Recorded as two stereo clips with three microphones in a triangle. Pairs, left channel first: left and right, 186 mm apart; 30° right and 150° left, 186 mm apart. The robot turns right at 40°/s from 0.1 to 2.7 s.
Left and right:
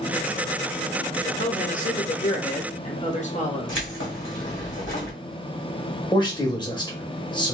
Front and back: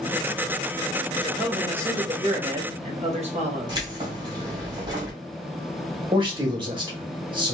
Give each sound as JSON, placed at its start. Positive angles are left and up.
{"t": 1.2, "sound": "a man speaking", "azimuth_deg": 60, "distance_m": 1.1}
{"t": 3.7, "sound": "keys jangling", "azimuth_deg": 85, "distance_m": 1.6}
{"t": 6.1, "sound": "a man speaking", "azimuth_deg": 125, "distance_m": 1.2}